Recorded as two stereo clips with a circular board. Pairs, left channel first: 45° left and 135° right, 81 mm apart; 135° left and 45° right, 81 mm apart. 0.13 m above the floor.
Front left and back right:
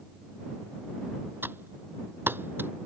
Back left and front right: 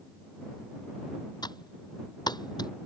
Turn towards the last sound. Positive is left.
turn(degrees=160)